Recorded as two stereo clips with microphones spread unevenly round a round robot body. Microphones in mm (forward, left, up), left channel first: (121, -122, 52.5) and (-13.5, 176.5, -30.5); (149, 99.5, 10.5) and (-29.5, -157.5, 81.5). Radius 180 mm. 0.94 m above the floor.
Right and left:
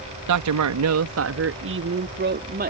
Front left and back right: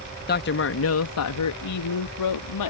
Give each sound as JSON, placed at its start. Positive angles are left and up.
{"t": 0.3, "sound": "a man speaking", "azimuth_deg": 105}